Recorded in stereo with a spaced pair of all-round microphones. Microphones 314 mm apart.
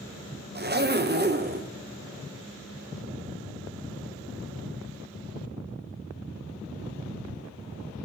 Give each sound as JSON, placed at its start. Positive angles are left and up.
{"t": 0.6, "sound": "a zipper", "side_deg": -35, "distance_m": 0.7}